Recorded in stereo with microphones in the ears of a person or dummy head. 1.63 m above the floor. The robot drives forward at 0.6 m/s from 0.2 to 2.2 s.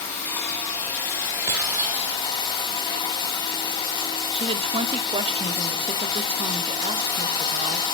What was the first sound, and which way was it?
Running water, 15° left (ahead or behind).